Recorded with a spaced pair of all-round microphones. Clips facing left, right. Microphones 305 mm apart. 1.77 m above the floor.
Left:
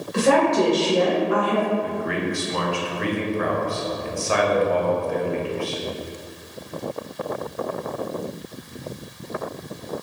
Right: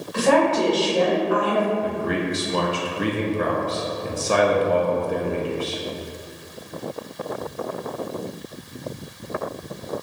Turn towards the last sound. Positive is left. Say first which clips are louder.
# right 1 dB
turn(degrees=-45)  # may be behind; listen again after turning